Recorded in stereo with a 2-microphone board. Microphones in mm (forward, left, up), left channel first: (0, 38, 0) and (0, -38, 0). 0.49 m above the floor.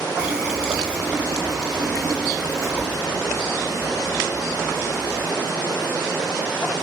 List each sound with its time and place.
0.2 s a running tap: 10° right (ahead or behind), 3 m